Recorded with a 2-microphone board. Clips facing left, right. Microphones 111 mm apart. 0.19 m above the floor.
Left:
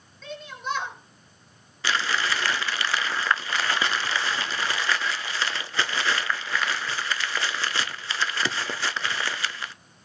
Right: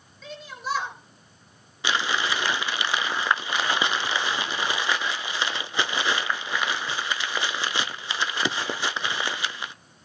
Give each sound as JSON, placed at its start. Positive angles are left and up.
{"t": 0.2, "sound": "a shout", "side_deg": -5, "distance_m": 3.5}
{"t": 1.8, "sound": "crumpling", "side_deg": -20, "distance_m": 0.7}